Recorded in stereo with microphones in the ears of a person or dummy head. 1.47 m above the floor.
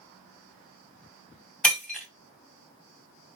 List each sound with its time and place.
1.6 s breaking glass: centre (ahead or behind), 3 m